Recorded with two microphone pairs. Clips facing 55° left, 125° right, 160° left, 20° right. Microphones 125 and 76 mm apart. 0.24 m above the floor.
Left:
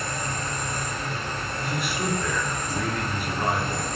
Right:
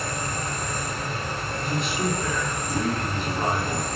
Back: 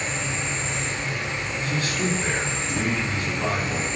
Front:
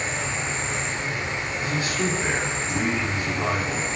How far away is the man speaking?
About 1.4 m.